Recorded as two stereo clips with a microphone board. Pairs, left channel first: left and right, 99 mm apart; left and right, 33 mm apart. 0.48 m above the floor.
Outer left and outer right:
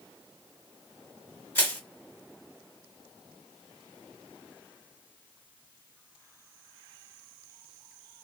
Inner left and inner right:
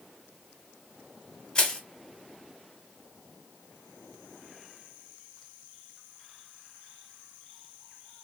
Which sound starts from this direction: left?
Crushing, at 1.6 s.